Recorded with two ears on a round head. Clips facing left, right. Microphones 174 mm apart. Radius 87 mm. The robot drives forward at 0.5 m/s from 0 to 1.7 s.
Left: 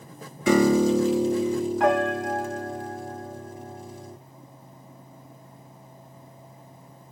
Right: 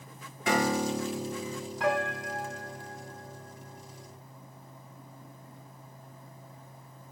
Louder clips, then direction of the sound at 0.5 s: Left 9 dB; 80° left.